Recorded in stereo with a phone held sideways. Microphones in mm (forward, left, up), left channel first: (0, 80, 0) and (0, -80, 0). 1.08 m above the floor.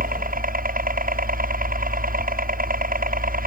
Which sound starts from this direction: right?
A helicopter, at 0.0 s.